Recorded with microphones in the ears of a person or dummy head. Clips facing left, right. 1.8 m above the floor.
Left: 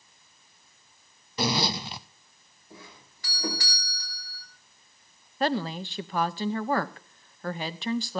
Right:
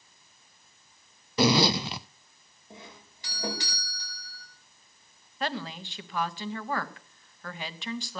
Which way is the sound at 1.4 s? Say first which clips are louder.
Right 5 dB; 55° right (ahead or behind).